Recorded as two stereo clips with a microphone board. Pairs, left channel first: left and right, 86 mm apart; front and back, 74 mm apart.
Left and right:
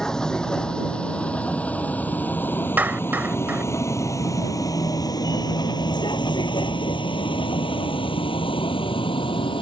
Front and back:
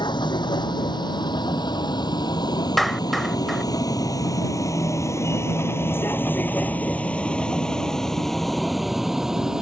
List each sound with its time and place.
0.0 s a vehicle: 5° left; by 9.6 s 100° left
2.8 s a clap: 85° right